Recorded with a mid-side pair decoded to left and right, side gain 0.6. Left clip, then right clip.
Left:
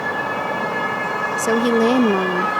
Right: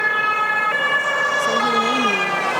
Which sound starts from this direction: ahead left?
A woman speaking, at 1.4 s.